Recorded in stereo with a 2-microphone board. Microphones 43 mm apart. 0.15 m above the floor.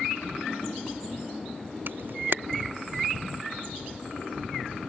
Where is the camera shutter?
55° right (ahead or behind).